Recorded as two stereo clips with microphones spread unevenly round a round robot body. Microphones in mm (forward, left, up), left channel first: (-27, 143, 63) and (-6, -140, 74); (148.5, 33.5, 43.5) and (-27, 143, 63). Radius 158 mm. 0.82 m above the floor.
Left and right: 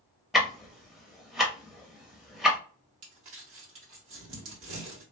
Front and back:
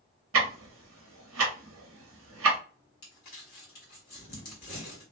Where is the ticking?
175° right, 0.5 m.